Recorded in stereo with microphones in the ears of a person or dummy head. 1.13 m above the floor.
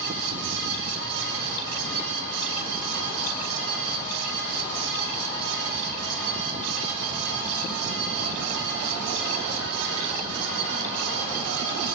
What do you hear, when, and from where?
0.0 s a fan: 80° right, 4 m